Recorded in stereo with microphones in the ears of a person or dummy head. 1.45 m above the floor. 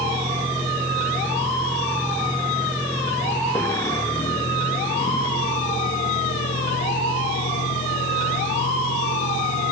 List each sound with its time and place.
0.0 s a vehicle: 20° right (ahead or behind); by 9.7 s 50° left (ahead or behind)